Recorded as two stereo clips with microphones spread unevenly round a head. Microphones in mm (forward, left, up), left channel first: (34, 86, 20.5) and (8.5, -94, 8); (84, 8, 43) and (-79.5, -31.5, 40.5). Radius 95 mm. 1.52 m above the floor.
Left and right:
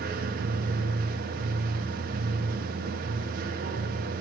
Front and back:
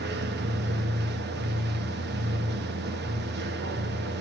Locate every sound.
0.0 s a machine running: 145° right, 1.3 m